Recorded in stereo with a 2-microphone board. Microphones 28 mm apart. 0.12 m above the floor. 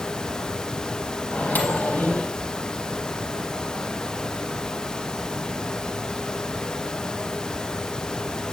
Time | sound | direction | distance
1.3 | a microwave | 70° left (ahead or behind) | 3 m